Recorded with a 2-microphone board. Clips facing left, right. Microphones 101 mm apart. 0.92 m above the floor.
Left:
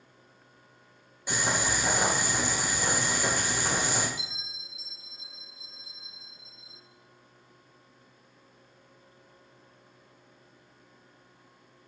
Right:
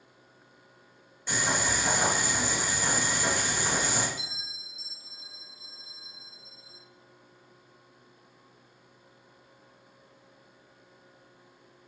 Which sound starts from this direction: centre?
Boiling, at 1.3 s.